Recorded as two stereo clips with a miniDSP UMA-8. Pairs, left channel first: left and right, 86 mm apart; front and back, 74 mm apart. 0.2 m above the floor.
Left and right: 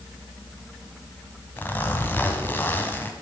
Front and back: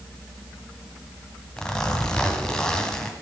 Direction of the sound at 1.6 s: 65° left.